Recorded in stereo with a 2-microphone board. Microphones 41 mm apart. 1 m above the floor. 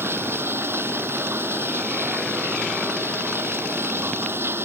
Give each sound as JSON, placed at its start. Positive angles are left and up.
{"t": 0.0, "sound": "running water", "side_deg": -75}